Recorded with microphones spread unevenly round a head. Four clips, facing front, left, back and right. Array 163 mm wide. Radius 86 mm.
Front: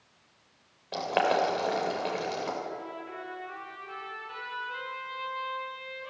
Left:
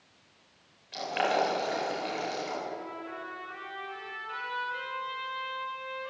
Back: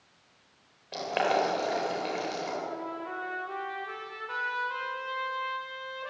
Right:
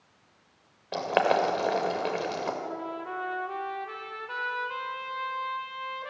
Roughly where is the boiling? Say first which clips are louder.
Right 4 dB, front 1 dB; right.